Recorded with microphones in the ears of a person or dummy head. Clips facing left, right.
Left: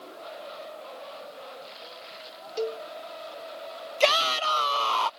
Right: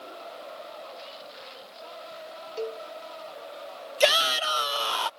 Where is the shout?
15° right (ahead or behind).